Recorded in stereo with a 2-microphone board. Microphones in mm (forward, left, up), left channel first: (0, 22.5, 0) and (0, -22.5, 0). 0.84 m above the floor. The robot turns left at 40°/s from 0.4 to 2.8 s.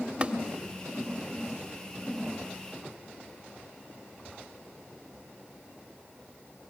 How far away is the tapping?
About 1.3 m.